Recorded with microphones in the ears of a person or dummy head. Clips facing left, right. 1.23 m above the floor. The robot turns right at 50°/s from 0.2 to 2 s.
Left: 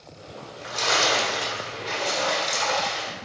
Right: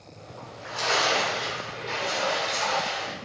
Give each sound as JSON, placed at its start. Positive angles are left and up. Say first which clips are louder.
{"t": 0.4, "sound": "a splash", "louder": "left 1 dB", "azimuth_deg": 25, "distance_m": 1.1}